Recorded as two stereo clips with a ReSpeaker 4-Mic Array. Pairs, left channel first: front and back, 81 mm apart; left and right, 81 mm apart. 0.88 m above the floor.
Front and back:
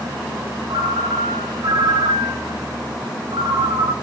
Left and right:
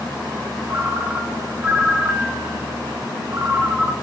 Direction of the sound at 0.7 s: 160° right.